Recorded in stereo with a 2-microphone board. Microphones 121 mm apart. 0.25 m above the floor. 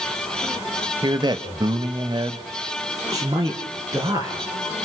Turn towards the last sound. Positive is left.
turn(degrees=-30)  # may be behind; listen again after turning